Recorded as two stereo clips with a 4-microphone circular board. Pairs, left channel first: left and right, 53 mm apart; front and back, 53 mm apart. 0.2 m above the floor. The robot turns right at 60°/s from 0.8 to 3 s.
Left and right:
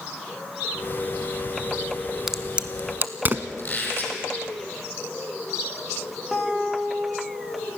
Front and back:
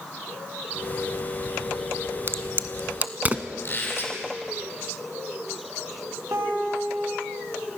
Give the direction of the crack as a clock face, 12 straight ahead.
6 o'clock.